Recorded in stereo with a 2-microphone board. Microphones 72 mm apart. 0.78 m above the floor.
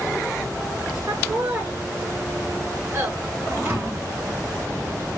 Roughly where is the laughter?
Right.